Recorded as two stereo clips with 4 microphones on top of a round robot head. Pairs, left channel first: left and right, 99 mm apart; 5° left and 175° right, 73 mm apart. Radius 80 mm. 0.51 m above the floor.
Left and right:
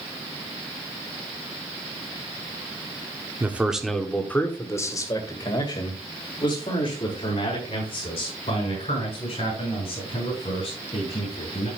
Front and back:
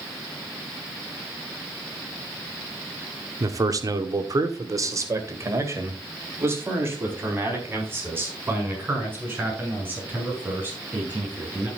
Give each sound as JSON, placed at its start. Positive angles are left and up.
{"t": 3.4, "sound": "a man speaking", "azimuth_deg": -155, "distance_m": 1.5}